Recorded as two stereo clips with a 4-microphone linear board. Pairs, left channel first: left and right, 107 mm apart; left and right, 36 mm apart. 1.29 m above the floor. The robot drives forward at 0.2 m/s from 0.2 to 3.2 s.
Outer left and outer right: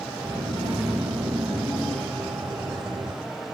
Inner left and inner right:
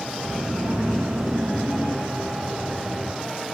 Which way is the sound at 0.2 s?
60° right (ahead or behind).